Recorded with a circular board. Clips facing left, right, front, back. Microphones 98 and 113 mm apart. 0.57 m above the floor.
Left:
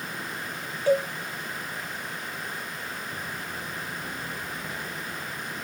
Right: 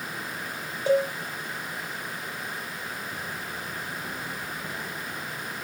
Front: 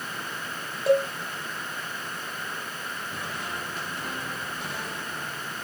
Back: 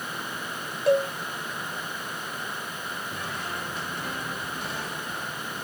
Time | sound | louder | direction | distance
0.9 | a cowbell | even, even | 85° right | 1.2 m